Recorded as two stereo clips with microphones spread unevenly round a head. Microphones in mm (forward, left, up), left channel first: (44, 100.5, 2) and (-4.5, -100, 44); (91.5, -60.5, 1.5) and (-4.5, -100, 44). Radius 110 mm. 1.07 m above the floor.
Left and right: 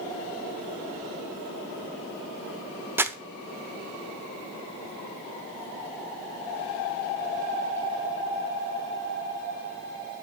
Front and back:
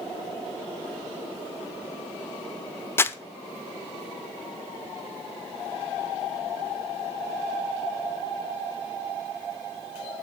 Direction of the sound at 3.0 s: 65° right.